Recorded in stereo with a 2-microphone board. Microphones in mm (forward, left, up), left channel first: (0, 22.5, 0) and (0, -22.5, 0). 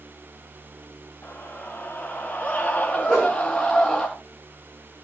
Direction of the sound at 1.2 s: 50° left (ahead or behind).